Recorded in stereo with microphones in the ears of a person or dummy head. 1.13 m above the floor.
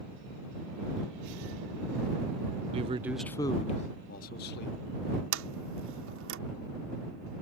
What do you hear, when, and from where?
2.7 s a man speaking: 35° right (ahead or behind); by 4.8 s 60° left (ahead or behind)
5.3 s a sliding door: 80° right